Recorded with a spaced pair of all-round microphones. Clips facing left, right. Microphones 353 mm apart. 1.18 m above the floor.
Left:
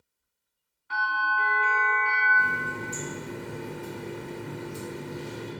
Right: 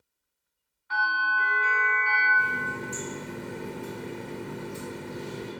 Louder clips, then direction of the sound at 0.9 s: Left 1 dB; 40° left (ahead or behind).